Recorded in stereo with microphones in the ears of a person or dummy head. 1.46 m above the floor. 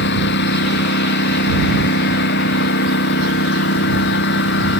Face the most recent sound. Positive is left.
turn(degrees=65)  # may be behind; listen again after turning